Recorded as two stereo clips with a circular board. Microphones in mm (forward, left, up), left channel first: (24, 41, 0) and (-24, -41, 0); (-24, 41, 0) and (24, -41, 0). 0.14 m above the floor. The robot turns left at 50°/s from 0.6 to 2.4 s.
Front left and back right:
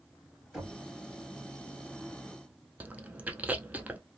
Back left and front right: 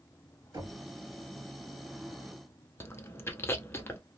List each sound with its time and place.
0.5 s knocking: 35° right, 1.7 m; by 0.8 s 45° right, 1.7 m
2.8 s chewing: 175° left, 0.5 m